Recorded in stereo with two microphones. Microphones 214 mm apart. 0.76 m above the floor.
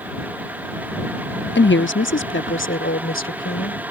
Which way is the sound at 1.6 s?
65° left (ahead or behind).